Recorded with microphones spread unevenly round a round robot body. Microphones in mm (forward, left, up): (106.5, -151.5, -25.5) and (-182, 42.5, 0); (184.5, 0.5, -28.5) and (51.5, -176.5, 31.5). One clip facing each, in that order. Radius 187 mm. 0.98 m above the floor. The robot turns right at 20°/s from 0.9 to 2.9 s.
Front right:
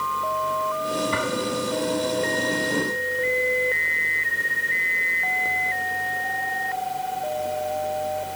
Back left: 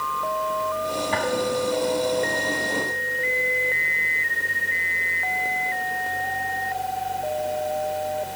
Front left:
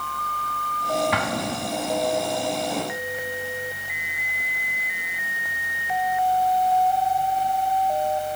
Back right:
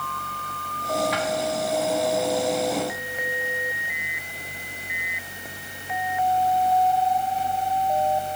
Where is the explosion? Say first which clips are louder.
Back left 2 dB, back right 1 dB; 45° left; by 2.1 s 65° left.